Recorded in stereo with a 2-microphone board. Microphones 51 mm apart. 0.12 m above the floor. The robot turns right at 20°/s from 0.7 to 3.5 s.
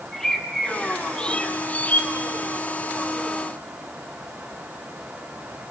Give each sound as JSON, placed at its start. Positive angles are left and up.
{"t": 0.1, "sound": "a bird", "side_deg": 10, "distance_m": 0.9}